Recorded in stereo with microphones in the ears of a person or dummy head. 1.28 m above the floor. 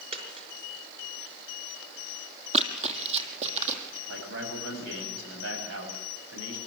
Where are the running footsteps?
35° right (ahead or behind), 2.5 m; by 4.0 s 40° right (ahead or behind), 3.5 m.